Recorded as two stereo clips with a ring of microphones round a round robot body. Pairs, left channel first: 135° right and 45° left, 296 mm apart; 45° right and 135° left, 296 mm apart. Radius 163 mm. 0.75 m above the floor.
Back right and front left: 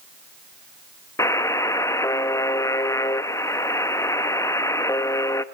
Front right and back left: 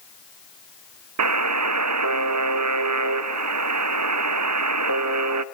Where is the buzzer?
145° left, 0.7 m.